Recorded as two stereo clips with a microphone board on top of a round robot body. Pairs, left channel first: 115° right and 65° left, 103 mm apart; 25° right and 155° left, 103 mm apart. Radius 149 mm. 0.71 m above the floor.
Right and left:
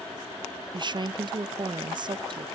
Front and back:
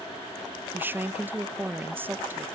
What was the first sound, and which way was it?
A woman speaking, 90° left.